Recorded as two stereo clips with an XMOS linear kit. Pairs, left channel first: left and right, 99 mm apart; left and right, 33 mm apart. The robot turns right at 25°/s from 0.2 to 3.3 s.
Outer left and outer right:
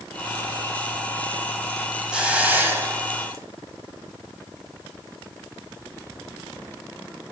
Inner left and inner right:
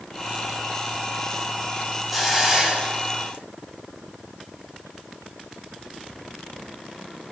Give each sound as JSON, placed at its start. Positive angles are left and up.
{"t": 2.1, "sound": "a hiss", "side_deg": -10, "distance_m": 1.8}